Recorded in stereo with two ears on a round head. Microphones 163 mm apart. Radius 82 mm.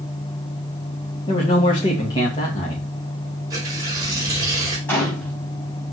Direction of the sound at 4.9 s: 10° left (ahead or behind).